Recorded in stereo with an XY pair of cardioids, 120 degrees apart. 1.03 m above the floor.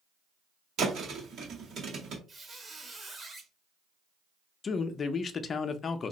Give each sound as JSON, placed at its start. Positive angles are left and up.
{"t": 0.8, "sound": "a thud", "azimuth_deg": -55, "distance_m": 1.5}
{"t": 2.3, "sound": "a squeak", "azimuth_deg": -20, "distance_m": 1.1}
{"t": 4.6, "sound": "a man speaking", "azimuth_deg": 40, "distance_m": 0.5}